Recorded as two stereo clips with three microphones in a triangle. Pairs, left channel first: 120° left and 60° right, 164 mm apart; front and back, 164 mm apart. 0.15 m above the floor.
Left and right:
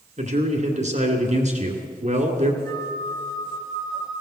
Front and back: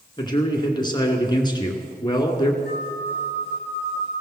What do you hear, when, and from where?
0.2 s a man speaking: 55° right, 2 m
2.6 s a flute: 175° right, 5.5 m